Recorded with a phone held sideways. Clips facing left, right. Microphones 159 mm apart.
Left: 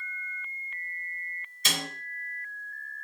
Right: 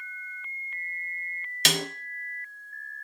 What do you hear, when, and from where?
1.6 s a snare drum: 80° right, 0.7 m